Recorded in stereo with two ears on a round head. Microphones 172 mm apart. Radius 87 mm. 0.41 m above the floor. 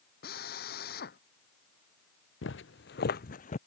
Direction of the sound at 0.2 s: 50° left (ahead or behind).